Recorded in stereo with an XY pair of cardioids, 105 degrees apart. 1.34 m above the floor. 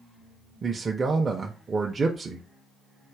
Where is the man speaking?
35° right, 0.5 m.